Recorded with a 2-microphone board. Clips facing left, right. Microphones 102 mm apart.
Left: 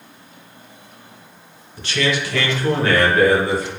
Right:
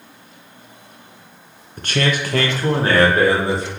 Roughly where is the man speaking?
Right.